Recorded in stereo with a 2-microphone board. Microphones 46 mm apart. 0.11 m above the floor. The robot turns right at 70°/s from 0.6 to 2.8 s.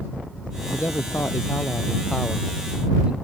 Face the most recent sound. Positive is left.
turn(degrees=-155)